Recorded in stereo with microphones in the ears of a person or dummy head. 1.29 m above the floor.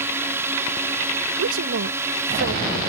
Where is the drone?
15° right (ahead or behind).